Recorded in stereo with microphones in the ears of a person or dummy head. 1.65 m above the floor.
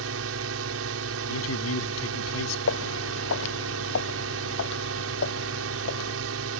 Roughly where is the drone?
Right.